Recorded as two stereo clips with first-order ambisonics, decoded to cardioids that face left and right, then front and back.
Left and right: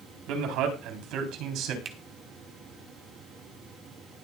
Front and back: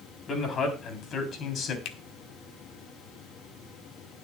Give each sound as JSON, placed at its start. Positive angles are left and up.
{"t": 0.3, "sound": "a man speaking", "azimuth_deg": -65, "distance_m": 3.5}
{"t": 1.9, "sound": "a finger snap", "azimuth_deg": -25, "distance_m": 1.3}